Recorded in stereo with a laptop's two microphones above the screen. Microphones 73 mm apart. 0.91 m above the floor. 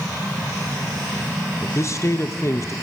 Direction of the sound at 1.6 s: 40° left (ahead or behind).